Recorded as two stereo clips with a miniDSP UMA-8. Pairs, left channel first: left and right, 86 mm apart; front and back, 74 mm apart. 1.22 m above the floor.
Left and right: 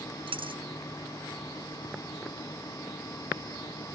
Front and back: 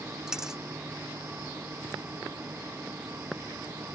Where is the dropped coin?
100° right.